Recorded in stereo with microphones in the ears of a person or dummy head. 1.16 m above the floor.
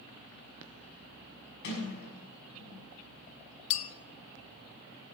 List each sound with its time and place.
1.6 s a sliding door: 65° left (ahead or behind), 6 m
3.7 s a clink: 35° left (ahead or behind), 0.6 m